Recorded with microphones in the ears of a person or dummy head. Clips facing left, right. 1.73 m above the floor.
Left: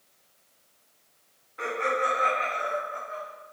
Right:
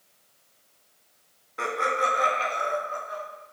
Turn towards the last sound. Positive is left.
turn(degrees=-60)  # may be behind; listen again after turning